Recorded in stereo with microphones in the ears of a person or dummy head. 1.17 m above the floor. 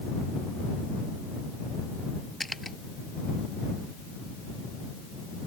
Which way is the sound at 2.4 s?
5° left (ahead or behind).